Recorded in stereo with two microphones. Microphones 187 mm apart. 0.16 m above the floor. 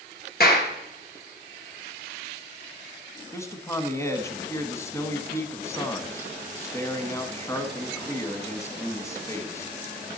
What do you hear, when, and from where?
0.4 s a clap: 55° left (ahead or behind), 2 m
3.3 s a man speaking: 15° left (ahead or behind), 1.0 m